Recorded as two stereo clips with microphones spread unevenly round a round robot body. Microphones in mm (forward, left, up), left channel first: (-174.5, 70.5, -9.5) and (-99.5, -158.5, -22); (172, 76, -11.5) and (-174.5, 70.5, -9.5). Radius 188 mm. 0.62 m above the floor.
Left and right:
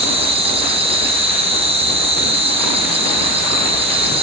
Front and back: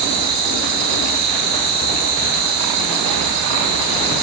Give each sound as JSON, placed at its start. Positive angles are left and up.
{"t": 0.0, "sound": "an insect", "azimuth_deg": -135, "distance_m": 2.5}